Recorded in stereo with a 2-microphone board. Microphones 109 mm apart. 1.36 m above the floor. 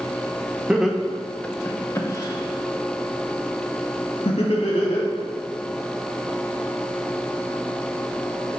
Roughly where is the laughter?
Centre.